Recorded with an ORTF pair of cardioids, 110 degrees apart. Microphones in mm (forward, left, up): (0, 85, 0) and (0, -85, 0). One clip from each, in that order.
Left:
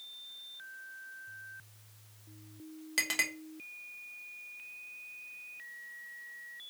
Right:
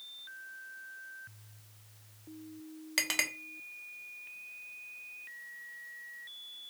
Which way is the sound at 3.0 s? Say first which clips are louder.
Even; 15° right.